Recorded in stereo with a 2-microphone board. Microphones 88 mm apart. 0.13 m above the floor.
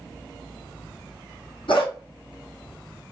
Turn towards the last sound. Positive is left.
turn(degrees=75)  # may be behind; listen again after turning